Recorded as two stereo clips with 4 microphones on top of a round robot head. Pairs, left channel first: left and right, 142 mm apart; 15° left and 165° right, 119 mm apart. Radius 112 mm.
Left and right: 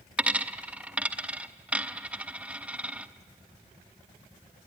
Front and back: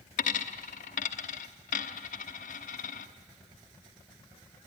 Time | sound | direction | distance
0.2 | a dropped coin | 10° right | 0.9 m